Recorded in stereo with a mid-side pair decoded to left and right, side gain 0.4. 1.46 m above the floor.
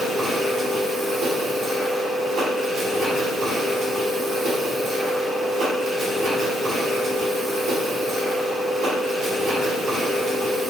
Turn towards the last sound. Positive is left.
turn(degrees=-65)